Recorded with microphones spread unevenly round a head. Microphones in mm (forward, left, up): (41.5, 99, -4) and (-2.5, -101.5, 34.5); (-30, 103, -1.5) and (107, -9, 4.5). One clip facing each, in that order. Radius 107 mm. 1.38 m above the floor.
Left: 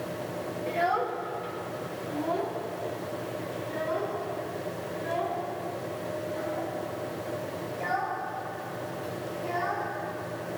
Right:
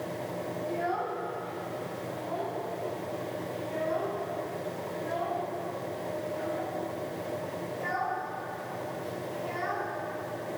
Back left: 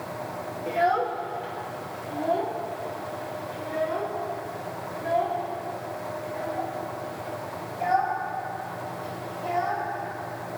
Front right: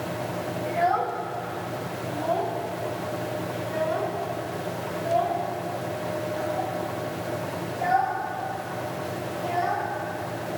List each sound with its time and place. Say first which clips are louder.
0.7 s a child speaking: left 4 dB, back left 1 dB; 90° left, 1.4 m; by 9.9 s 55° left, 8.5 m